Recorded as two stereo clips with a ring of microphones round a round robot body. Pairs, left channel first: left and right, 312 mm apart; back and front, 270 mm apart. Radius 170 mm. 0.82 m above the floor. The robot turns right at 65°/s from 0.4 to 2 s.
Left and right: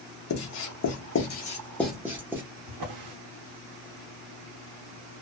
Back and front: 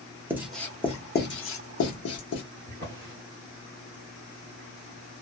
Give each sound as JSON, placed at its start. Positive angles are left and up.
{"t": 0.3, "sound": "writing", "azimuth_deg": 85, "distance_m": 1.0}
{"t": 2.7, "sound": "a drawer", "azimuth_deg": -65, "distance_m": 0.8}